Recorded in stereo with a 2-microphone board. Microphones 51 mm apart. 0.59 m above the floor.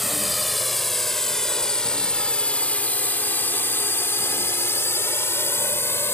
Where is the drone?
5° right (ahead or behind); by 6.2 s 55° left (ahead or behind).